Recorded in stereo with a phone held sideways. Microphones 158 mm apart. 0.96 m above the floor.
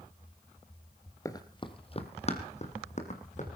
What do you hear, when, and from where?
1.2 s running footsteps: 20° left (ahead or behind), 1.1 m; by 3.5 s 50° left (ahead or behind), 3 m